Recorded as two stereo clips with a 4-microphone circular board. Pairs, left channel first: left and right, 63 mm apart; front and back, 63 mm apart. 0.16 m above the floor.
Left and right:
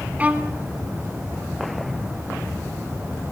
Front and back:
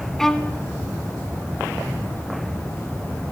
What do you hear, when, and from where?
0.2 s a violin: 75° right, 1.4 m